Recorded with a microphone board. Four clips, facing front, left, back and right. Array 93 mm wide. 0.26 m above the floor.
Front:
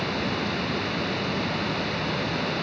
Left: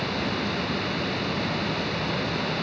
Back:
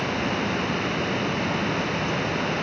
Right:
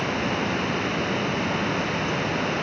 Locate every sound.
Only background noise.